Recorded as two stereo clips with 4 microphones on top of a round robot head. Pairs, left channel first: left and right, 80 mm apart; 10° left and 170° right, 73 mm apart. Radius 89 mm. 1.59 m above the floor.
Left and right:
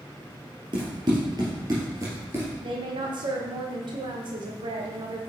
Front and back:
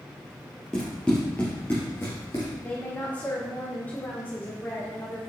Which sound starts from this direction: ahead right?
A woman speaking, at 2.6 s.